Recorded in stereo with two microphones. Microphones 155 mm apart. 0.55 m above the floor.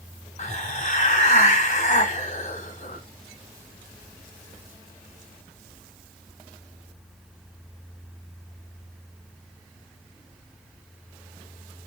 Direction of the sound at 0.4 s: 50° left (ahead or behind).